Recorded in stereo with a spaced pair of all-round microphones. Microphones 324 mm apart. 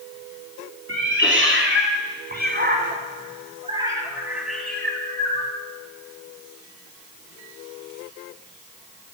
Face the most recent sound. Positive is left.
turn(degrees=15)  # may be behind; listen again after turning